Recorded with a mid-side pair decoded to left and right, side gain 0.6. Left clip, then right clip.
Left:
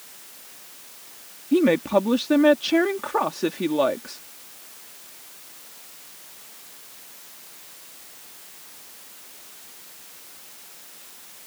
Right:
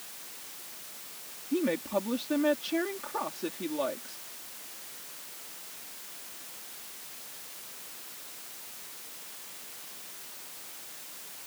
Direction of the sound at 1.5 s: 50° left.